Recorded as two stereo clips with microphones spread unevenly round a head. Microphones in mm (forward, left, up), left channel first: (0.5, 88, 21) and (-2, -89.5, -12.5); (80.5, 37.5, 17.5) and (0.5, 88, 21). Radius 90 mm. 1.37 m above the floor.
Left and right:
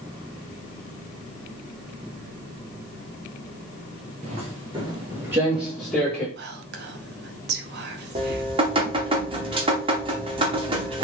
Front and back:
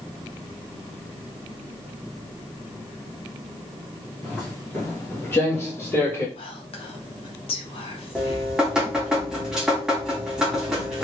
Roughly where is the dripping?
Behind right.